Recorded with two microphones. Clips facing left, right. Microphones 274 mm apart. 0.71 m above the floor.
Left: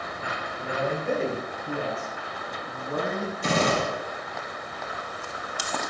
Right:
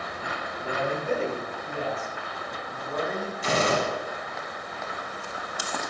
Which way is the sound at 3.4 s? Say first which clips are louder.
Even; 60° left (ahead or behind).